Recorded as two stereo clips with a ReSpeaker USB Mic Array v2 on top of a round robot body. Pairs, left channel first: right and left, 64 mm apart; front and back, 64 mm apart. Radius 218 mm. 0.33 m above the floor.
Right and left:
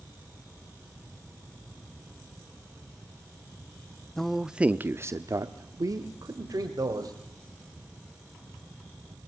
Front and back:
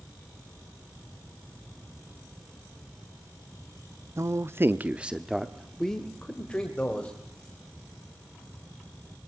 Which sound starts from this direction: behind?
A man speaking, at 4.2 s.